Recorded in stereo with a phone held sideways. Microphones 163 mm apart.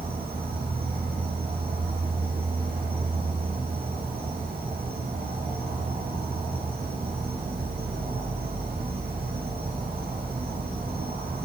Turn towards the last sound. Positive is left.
turn(degrees=-70)  # may be behind; listen again after turning